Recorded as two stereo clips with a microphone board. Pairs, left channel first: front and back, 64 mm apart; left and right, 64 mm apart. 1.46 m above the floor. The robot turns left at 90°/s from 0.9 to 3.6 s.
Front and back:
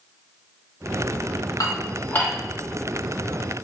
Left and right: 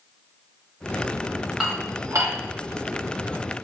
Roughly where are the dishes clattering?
Ahead.